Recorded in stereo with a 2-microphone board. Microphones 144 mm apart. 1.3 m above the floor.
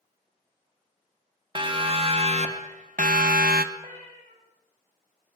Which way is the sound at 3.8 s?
50° right (ahead or behind).